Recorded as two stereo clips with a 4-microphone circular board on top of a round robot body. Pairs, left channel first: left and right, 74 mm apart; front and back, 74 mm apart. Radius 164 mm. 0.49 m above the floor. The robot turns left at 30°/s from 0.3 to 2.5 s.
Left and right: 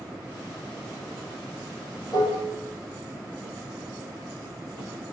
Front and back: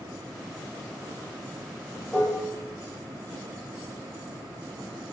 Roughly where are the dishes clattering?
Ahead left.